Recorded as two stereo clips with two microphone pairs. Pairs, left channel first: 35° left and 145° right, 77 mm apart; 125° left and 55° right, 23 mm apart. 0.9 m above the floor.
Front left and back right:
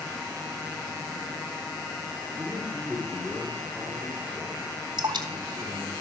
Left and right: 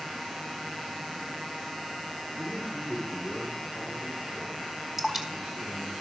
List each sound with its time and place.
2.4 s a man speaking: 65° right, 2.5 m; by 6.0 s 35° right, 7.5 m
5.0 s dripping: 130° right, 2 m